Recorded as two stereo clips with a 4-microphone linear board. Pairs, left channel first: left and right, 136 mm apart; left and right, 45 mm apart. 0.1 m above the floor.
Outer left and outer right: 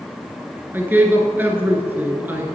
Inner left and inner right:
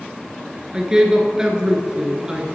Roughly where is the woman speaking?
Centre.